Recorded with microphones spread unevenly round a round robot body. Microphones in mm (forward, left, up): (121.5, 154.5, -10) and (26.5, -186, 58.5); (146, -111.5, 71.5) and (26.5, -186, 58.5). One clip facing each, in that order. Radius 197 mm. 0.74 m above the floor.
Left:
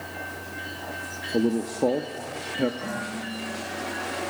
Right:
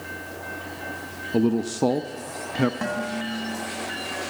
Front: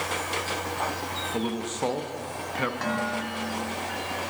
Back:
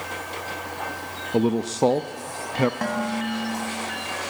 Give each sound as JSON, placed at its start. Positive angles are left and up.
{"t": 1.3, "sound": "a man speaking", "azimuth_deg": -175, "distance_m": 0.5}
{"t": 2.8, "sound": "dishes clattering", "azimuth_deg": -110, "distance_m": 4.0}